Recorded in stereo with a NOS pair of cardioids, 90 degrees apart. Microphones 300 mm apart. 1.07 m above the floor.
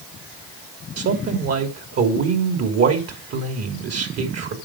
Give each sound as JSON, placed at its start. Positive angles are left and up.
{"t": 1.0, "sound": "a man speaking", "azimuth_deg": -55, "distance_m": 3.0}